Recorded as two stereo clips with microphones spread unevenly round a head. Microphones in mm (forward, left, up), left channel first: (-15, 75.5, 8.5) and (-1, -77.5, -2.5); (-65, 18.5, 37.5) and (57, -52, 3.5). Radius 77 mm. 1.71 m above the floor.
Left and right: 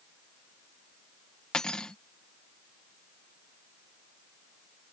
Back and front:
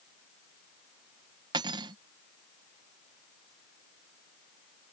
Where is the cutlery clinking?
30° left.